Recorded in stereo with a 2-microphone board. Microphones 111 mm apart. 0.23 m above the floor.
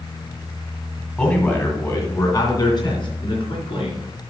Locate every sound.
1.2 s a man speaking: 10° left (ahead or behind), 1.8 m; by 4.0 s 55° left (ahead or behind), 3.5 m